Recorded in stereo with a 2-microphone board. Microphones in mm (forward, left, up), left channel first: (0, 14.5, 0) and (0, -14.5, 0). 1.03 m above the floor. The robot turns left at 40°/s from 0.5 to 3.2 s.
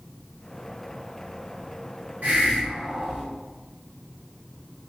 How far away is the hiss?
About 1.0 m.